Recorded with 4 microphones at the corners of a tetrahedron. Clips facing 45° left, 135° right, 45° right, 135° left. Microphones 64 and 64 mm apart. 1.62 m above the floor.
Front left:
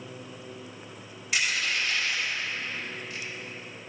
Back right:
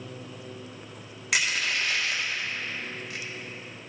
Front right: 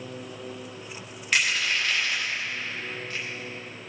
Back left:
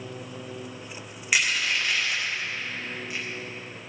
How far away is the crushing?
About 1.6 m.